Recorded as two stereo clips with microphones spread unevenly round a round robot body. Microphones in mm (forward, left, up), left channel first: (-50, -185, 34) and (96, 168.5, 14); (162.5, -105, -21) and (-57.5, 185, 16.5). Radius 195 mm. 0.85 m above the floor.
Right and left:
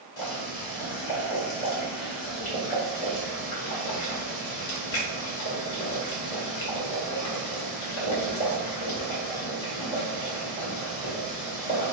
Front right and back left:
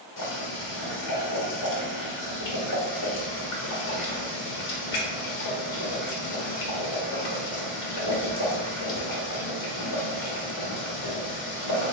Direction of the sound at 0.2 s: 105° right.